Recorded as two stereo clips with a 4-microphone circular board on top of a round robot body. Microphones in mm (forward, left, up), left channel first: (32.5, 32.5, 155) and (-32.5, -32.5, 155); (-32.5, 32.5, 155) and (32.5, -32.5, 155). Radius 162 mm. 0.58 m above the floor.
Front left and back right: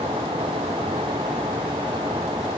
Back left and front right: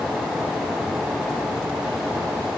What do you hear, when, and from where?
Only background noise.